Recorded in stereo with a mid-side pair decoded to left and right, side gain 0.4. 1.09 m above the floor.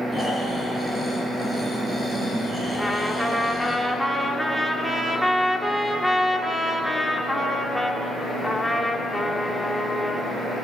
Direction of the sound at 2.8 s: 5° left.